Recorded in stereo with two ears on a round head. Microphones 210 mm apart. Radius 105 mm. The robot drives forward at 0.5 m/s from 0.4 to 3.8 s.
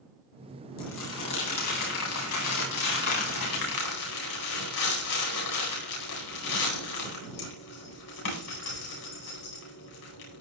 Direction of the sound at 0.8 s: 80° left.